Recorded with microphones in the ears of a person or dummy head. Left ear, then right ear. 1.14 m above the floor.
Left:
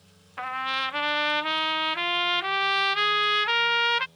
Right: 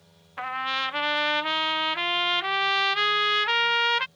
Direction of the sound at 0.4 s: 10° right (ahead or behind).